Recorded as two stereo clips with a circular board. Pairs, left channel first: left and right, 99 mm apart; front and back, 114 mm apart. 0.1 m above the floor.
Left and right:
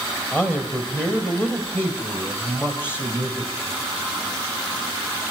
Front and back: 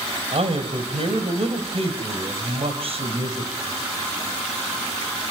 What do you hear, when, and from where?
0.3 s a man speaking: 155° left, 3 m